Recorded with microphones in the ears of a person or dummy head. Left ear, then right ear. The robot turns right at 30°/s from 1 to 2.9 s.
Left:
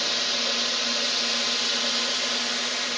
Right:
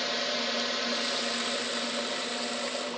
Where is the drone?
25° left; by 3.0 s 80° left.